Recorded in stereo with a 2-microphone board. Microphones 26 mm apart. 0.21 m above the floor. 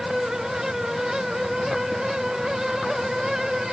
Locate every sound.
Only background noise.